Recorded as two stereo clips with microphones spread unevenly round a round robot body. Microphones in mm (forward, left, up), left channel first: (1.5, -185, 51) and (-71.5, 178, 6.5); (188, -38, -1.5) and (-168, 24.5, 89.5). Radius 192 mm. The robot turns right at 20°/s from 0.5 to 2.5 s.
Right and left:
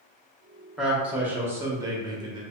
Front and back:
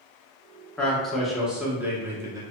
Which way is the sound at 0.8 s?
30° left.